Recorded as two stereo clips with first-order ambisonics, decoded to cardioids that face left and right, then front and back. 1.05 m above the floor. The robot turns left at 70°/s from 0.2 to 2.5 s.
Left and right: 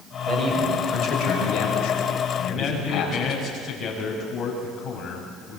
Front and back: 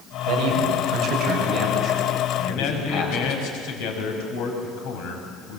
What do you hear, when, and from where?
0.3 s a man speaking: 175° right, 6 m; by 3.4 s 30° left, 6 m
2.4 s a man speaking: 25° left, 5.5 m; by 5.6 s 20° left, 5.5 m